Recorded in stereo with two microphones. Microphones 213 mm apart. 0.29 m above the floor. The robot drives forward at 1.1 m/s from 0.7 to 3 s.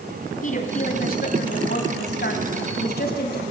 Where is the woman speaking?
40° left (ahead or behind), 3 m; by 3.4 s 45° left (ahead or behind), 2.5 m.